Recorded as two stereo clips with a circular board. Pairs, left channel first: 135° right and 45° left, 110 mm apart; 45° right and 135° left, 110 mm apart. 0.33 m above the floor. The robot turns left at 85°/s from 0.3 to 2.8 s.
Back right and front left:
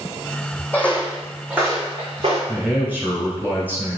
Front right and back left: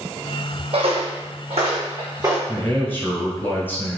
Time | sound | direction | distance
0.7 | footsteps | 150° left | 0.7 m
2.5 | a man speaking | 25° left | 0.9 m